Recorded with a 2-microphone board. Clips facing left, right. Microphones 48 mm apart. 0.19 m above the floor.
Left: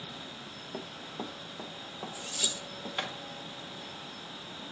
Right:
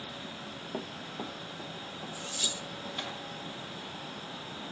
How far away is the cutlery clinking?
About 3 m.